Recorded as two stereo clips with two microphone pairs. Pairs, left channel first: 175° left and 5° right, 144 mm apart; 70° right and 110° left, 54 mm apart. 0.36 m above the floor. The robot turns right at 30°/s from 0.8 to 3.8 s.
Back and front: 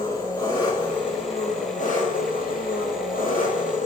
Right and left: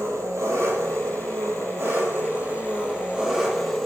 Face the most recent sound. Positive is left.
turn(degrees=-155)